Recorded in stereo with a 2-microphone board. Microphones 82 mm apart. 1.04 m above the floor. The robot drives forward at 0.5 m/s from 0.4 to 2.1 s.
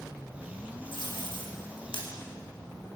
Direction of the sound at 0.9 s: 85° left.